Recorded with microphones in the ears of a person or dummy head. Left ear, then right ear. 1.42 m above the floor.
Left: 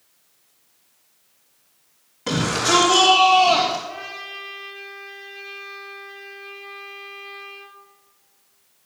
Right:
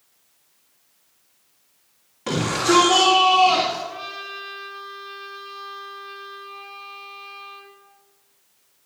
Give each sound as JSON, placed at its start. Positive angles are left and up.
{"t": 2.3, "sound": "a shout", "side_deg": -5, "distance_m": 3.0}
{"t": 3.9, "sound": "a trumpet", "side_deg": 25, "distance_m": 4.0}